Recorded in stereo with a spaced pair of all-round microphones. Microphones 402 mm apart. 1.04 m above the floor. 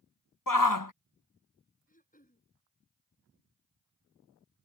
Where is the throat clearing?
20° left (ahead or behind).